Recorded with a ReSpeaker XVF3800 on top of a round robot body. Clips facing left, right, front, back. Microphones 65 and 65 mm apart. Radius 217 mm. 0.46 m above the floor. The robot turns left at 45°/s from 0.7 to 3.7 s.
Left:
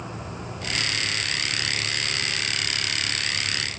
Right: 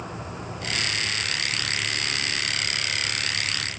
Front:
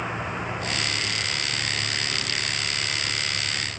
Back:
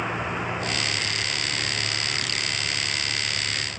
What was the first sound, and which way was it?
Only background noise.